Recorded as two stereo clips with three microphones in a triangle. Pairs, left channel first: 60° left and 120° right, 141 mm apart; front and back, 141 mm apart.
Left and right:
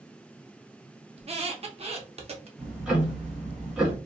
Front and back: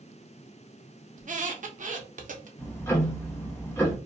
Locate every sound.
1.2 s a squeak: 160° right, 0.5 m
2.6 s ticking: 45° right, 1.1 m